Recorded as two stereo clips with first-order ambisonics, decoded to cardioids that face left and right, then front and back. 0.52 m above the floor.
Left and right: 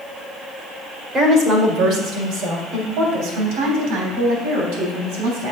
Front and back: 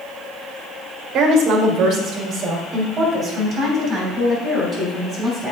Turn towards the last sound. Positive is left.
turn(degrees=-105)